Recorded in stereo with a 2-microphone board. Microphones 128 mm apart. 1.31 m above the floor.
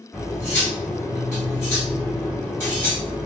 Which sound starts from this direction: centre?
Cutlery clinking, at 0.1 s.